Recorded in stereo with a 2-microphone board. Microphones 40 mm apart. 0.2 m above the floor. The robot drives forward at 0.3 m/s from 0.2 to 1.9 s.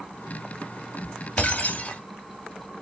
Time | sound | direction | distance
1.4 | breaking glass | 35° left (ahead or behind) | 1.0 m